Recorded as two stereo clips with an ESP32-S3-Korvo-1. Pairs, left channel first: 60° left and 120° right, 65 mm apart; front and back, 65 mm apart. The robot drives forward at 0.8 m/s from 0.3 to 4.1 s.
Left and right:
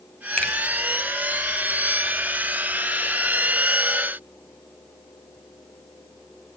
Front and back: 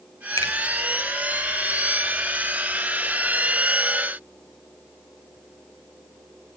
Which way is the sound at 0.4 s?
15° right.